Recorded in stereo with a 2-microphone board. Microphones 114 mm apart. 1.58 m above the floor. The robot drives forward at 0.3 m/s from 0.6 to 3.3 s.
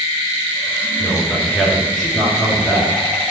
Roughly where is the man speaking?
Centre.